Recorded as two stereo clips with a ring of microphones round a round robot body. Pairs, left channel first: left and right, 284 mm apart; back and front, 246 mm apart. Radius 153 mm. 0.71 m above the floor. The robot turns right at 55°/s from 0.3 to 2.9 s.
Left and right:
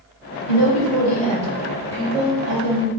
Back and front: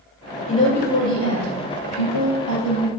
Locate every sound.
0.5 s a woman speaking: 110° left, 3.5 m; by 2.9 s 115° right, 3.5 m